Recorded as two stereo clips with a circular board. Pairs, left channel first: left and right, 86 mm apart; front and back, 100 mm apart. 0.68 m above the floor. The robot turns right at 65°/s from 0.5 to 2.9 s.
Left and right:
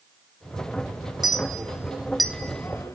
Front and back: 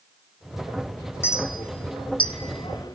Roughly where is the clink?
Ahead right.